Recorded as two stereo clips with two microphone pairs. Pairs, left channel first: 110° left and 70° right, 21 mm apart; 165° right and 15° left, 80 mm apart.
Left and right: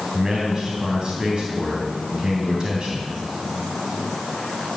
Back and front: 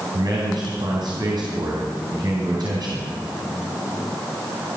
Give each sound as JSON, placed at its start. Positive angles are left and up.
{"t": 0.1, "sound": "a man speaking", "azimuth_deg": -10, "distance_m": 3.0}